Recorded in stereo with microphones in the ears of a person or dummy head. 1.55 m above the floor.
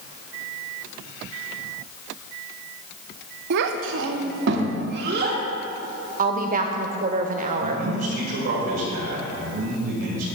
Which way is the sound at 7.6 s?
55° right (ahead or behind).